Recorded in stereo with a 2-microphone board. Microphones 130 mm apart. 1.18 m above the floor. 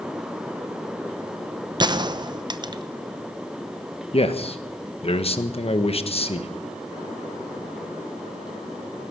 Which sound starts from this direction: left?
A man speaking, at 4.1 s.